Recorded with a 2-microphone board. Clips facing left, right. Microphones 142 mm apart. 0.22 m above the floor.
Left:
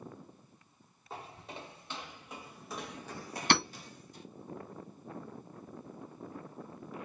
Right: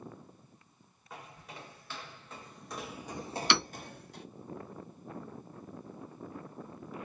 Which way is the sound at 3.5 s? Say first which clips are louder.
Left 3 dB; 45° left (ahead or behind).